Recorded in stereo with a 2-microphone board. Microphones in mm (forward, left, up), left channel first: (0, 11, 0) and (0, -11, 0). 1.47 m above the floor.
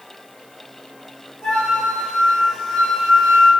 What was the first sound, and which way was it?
A flute, 70° left (ahead or behind).